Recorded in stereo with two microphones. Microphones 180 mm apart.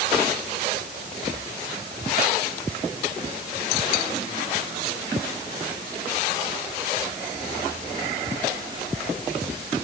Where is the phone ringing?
No phone ringing in this recording.